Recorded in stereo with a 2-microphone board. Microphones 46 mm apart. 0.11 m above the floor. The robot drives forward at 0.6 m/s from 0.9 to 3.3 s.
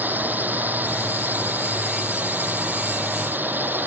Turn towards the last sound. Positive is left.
turn(degrees=-45)  # may be behind; listen again after turning